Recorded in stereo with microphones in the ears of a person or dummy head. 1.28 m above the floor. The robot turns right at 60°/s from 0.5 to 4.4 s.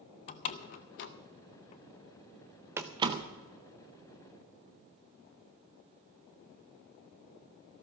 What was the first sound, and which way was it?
A door slam, 40° left (ahead or behind).